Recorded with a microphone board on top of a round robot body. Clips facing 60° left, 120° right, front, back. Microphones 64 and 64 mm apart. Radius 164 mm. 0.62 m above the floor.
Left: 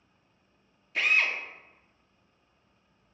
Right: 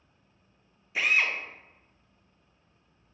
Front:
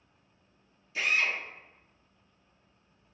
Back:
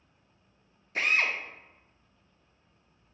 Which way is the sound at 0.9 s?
160° left.